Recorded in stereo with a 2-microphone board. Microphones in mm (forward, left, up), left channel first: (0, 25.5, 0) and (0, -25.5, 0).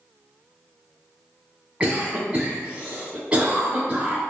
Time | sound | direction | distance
1.8 | a cough | 20° right (ahead or behind) | 1.1 m